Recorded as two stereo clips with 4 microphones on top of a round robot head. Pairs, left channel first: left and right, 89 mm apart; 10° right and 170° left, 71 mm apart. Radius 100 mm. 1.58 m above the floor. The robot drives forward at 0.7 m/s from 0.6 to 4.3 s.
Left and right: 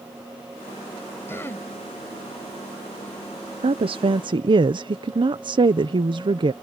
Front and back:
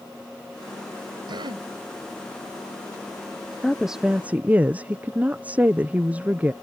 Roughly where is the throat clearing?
Behind left.